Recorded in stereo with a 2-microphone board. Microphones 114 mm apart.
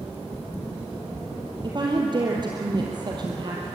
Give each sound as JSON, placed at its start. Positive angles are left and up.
{"t": 1.6, "sound": "a woman speaking", "side_deg": -40, "distance_m": 3.0}